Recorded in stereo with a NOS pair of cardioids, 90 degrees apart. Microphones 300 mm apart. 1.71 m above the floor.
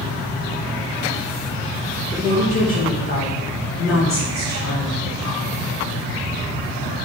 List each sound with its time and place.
2.1 s a woman speaking: 10° left, 1.8 m; by 5.0 s 75° left, 2.5 m